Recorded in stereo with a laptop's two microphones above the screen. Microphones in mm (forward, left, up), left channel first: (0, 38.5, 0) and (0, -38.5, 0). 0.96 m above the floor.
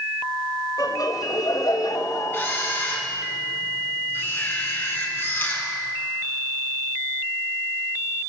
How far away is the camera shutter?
About 7 m.